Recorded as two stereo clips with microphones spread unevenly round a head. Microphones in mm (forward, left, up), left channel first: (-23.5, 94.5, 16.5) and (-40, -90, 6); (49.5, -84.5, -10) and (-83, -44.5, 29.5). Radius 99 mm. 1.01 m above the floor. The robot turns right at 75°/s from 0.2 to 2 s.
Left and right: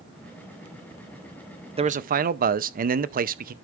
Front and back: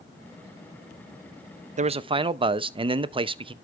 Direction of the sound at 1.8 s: 155° right.